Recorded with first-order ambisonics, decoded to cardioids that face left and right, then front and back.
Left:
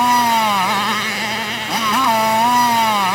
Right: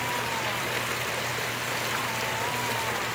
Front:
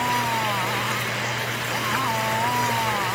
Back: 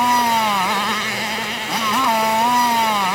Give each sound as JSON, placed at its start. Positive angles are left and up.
{"t": 0.0, "sound": "a motorcycle", "azimuth_deg": 120}